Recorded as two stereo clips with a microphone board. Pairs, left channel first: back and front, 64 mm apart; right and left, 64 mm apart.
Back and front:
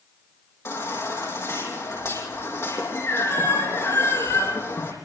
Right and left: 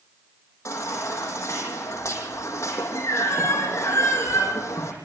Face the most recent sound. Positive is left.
turn(degrees=-135)